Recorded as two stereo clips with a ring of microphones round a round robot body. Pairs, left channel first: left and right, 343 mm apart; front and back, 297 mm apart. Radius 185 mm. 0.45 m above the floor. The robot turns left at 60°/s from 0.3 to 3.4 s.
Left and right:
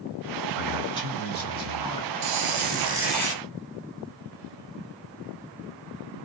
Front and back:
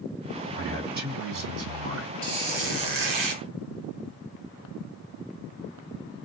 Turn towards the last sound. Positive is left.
turn(degrees=165)